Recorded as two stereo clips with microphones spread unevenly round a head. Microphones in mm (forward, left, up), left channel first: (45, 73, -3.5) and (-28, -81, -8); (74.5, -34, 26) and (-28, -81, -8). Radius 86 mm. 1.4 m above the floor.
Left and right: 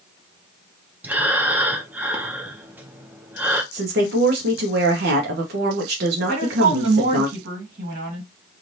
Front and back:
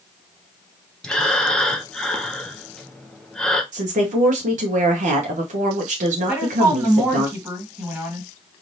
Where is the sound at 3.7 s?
145° right, 0.8 m.